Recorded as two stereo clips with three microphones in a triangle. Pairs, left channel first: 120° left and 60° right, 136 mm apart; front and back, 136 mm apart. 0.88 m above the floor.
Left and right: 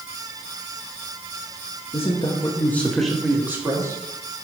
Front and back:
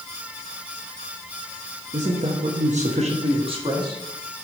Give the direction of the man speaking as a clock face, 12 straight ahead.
7 o'clock.